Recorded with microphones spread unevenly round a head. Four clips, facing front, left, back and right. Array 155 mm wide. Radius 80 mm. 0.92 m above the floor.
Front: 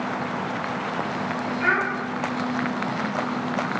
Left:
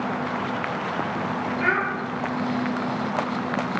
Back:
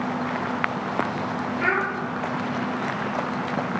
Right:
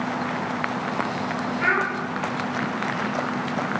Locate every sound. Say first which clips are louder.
1.6 s a child speaking: right 1 dB, front 1 dB; 170° right, 1.3 m